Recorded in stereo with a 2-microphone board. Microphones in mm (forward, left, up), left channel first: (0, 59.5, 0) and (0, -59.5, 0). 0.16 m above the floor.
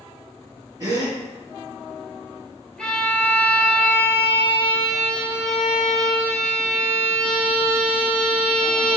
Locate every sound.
0.8 s a gasp: 30° right (ahead or behind), 1.6 m
2.8 s a violin: 10° left (ahead or behind), 1.4 m